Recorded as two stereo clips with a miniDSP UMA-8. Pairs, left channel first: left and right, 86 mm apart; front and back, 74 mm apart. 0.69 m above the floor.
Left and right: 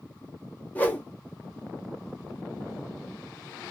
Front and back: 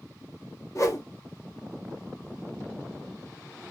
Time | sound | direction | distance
0.8 | a whoosh | 25° left | 0.6 m